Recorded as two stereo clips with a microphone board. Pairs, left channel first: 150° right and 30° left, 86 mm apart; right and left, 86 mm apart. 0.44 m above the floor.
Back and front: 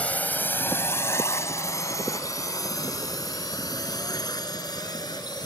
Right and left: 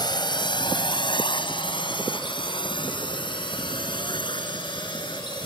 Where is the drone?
80° right; by 5.5 s 115° right.